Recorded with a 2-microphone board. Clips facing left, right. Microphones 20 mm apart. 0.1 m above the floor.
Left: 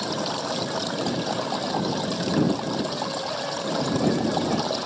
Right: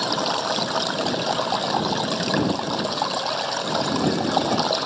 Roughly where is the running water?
Right.